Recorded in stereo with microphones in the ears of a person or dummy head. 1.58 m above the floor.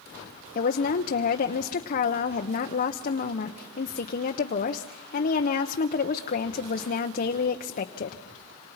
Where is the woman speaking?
50° left (ahead or behind), 1.0 m.